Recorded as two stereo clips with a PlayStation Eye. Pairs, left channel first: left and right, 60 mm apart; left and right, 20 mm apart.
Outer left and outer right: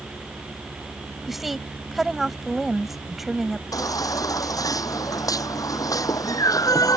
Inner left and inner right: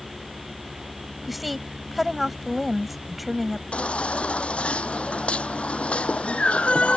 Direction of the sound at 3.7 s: 80° left.